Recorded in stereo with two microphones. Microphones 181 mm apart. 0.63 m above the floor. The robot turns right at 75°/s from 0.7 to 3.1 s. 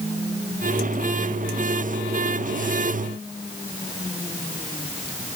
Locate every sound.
Only background noise.